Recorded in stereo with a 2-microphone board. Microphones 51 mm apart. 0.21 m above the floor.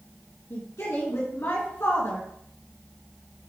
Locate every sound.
0.5 s a woman speaking: 60° left (ahead or behind), 3 m